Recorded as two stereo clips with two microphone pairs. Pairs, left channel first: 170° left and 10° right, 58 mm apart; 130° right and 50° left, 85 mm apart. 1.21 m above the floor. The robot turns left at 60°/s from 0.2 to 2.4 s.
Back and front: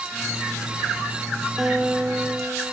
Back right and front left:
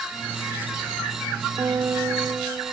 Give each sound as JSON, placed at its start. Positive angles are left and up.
{"t": 1.6, "sound": "a guitar", "azimuth_deg": 80, "distance_m": 0.9}